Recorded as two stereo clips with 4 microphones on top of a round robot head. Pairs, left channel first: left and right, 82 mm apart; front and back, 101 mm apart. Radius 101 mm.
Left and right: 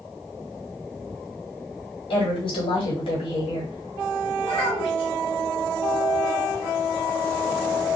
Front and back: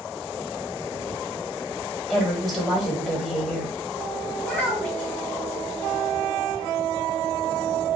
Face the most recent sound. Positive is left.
turn(degrees=75)